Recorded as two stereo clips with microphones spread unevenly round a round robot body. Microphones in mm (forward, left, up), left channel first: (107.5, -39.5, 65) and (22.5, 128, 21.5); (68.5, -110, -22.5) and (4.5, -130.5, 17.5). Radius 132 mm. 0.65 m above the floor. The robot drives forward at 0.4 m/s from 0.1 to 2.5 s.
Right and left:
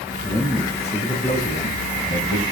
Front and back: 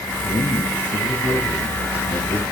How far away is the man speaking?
About 4 m.